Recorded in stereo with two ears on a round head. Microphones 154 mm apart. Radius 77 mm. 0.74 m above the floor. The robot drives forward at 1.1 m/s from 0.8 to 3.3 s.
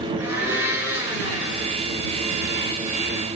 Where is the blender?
10° right (ahead or behind), 6 m; by 1.7 s 15° right (ahead or behind), 5 m.